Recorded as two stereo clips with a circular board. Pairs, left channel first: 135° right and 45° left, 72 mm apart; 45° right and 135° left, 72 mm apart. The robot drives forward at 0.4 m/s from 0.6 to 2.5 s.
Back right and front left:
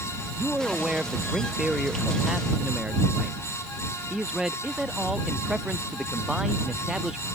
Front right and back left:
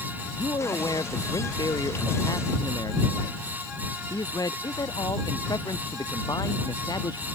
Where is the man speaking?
35° right.